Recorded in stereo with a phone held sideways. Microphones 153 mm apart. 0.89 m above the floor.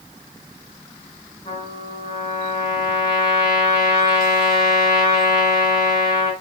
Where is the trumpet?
25° left (ahead or behind), 5.5 m.